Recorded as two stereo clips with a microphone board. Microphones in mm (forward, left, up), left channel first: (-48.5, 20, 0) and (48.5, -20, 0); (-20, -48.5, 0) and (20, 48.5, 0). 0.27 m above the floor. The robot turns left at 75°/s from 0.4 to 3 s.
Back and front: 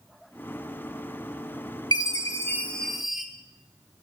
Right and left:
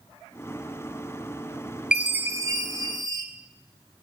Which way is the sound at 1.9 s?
145° left.